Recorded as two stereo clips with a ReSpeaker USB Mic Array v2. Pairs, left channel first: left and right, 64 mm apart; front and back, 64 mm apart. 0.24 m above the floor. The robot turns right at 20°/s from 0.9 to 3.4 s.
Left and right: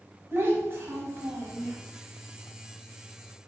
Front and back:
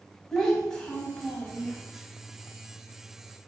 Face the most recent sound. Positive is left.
turn(degrees=-30)